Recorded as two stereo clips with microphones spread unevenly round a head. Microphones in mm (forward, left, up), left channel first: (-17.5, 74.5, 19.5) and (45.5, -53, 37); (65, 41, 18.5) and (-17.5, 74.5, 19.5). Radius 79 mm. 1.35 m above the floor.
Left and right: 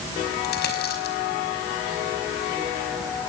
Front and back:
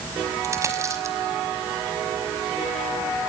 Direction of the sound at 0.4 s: 100° left.